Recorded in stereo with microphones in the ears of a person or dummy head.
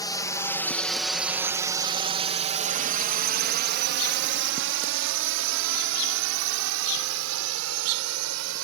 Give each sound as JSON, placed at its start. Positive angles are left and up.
{"t": 0.0, "sound": "a drone", "side_deg": 20}